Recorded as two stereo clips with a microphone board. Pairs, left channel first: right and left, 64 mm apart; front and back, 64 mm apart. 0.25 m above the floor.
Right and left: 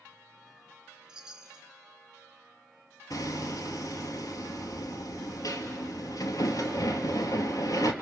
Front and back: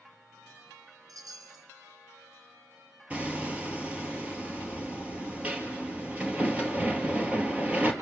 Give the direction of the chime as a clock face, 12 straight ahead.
6 o'clock.